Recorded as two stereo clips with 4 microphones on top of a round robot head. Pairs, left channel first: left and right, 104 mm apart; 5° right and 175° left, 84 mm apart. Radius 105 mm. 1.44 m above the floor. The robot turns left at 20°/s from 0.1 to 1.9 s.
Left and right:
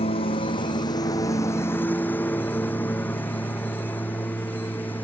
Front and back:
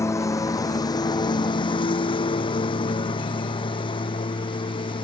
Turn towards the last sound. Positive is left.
turn(degrees=15)